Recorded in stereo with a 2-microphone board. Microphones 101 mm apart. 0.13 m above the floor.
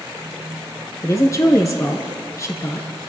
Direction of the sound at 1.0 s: 35° left (ahead or behind).